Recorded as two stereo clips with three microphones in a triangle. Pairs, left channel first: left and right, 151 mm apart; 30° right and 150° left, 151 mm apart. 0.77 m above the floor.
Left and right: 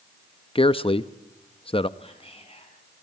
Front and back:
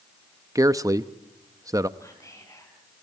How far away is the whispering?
About 6.5 m.